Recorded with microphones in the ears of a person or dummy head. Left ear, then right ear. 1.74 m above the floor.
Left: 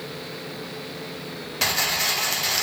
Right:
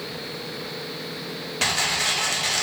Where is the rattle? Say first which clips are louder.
Even; 15° left (ahead or behind), 1.0 m.